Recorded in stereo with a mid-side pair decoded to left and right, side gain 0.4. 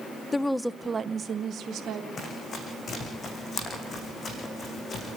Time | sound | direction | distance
0.3 | a woman speaking | 30° left | 0.8 m
2.2 | running footsteps | 50° left | 6 m